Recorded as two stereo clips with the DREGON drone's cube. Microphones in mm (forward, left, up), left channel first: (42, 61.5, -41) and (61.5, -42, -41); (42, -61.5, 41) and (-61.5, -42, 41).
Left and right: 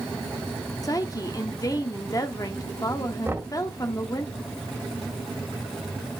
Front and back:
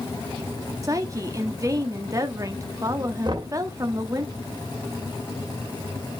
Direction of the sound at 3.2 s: 145° right.